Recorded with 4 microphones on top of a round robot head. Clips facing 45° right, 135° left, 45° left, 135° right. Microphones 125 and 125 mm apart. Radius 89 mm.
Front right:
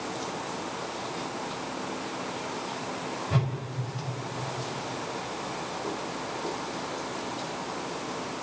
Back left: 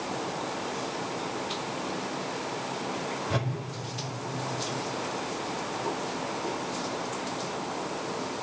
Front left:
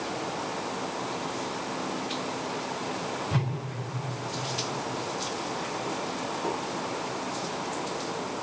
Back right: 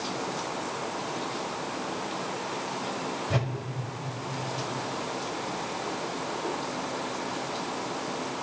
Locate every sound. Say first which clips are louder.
3.3 s a whoosh: front right 2 dB, back right 2 dB; straight behind, 3.5 m